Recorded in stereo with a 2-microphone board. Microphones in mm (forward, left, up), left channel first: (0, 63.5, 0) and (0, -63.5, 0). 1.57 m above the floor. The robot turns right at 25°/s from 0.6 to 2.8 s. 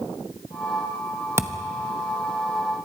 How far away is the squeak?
No squeak in this recording.